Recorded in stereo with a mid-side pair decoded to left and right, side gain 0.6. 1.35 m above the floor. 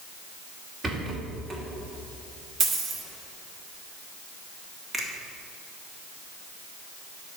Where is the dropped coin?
50° right, 2 m.